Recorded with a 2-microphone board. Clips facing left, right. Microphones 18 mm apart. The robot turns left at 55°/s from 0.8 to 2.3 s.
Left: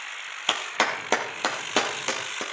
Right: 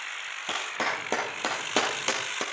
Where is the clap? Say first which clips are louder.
Left 5 dB; 50° left (ahead or behind), 3 m; by 2.4 s 20° right (ahead or behind), 3 m.